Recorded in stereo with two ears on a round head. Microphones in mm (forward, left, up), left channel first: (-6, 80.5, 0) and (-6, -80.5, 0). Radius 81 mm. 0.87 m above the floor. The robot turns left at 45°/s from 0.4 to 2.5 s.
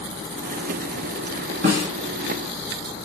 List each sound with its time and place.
1.6 s a snare drum: 55° right (ahead or behind), 1.5 m; by 1.9 s 60° right (ahead or behind), 1.5 m